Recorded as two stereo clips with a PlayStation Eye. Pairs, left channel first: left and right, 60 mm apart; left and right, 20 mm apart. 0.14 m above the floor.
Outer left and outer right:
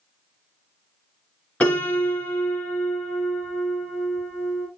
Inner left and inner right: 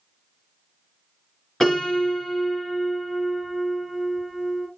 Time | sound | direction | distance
1.6 | a piano | 25° left (ahead or behind) | 1.6 m